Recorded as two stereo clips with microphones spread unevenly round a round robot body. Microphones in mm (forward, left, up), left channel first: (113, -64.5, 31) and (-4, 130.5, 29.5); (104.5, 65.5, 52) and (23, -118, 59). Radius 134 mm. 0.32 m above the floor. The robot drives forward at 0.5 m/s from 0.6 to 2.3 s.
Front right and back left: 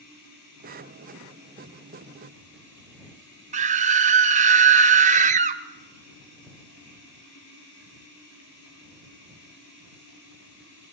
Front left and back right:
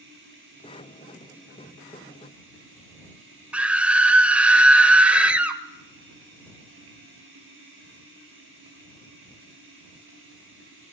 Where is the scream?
160° left, 1.1 m.